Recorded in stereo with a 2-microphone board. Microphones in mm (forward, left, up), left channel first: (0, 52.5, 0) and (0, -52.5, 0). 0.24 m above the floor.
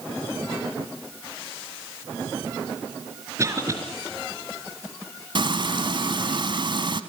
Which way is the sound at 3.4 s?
30° right (ahead or behind).